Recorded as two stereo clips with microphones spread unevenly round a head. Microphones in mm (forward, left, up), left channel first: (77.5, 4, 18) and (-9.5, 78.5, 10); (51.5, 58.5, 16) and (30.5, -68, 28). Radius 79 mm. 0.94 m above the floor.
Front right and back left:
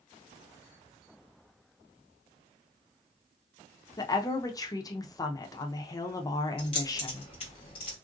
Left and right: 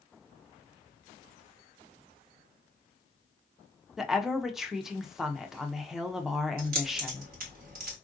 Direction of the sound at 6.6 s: 100° right.